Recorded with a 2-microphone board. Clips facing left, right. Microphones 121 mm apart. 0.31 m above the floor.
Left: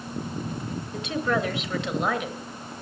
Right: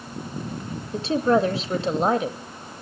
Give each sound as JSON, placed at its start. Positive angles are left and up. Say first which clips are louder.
{"t": 0.9, "sound": "a woman speaking", "louder": "right 7 dB", "side_deg": -30, "distance_m": 1.1}